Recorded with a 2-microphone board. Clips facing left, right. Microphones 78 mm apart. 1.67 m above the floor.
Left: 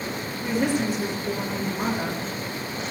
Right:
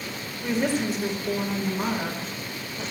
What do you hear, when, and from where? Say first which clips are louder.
0.4 s a woman speaking: left 1 dB; 60° left (ahead or behind), 4 m